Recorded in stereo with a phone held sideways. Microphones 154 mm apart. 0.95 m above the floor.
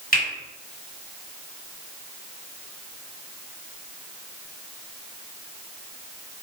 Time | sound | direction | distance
0.1 | a finger snap | 75° left (ahead or behind) | 1.5 m